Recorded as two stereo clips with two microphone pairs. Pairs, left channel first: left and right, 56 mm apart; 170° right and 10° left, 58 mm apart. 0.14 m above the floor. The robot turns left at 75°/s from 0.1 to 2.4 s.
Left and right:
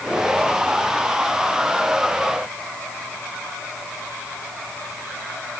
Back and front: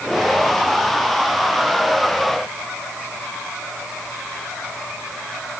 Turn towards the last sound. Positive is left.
No sound to turn to.